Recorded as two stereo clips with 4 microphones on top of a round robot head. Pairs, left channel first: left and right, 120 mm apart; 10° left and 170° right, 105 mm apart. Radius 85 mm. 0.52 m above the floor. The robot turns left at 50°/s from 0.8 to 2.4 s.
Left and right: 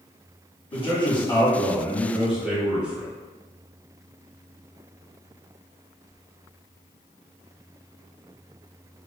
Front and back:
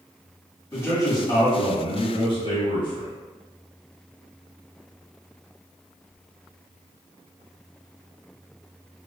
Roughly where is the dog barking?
I don't hear a dog barking.